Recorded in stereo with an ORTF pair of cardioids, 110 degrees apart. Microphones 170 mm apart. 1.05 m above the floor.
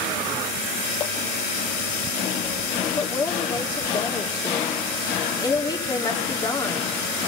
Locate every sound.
3.0 s a woman speaking: 25° left, 2.5 m